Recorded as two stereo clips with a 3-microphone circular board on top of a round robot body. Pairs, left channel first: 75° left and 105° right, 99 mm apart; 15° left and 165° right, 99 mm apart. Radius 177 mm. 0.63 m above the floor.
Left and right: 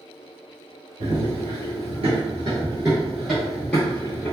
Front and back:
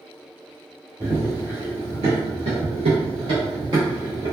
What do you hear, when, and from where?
1.0 s running footsteps: 110° right, 1.2 m; by 4.3 s 145° left, 1.3 m